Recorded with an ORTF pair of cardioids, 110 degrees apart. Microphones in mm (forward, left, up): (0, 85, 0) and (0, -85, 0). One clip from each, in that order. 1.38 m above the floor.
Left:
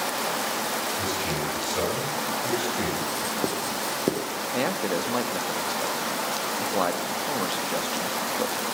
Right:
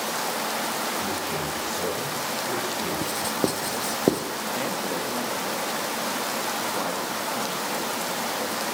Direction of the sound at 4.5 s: 35° left.